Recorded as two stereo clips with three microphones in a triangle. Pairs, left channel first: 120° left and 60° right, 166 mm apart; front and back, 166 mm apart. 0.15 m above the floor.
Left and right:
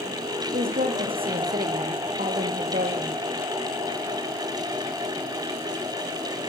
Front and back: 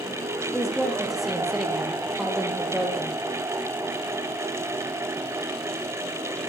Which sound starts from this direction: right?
A woman speaking, at 0.5 s.